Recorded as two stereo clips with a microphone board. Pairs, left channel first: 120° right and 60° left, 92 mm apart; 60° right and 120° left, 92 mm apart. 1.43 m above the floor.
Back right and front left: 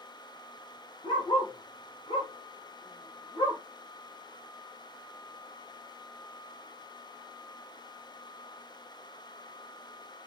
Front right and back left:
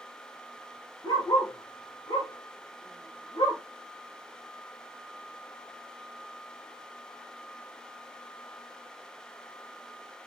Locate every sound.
1.0 s a dog barking: 105° right, 6.5 m; by 3.6 s 90° right, 7.5 m